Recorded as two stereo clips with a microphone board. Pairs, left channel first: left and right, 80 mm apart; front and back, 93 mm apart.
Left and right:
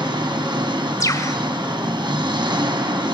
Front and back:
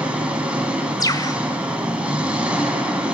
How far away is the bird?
About 1.8 m.